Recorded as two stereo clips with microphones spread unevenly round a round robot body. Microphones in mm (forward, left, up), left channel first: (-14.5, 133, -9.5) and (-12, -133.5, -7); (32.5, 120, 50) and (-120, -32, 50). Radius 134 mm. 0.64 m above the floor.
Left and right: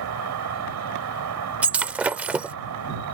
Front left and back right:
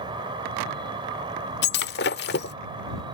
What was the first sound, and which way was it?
An insect, 65° right.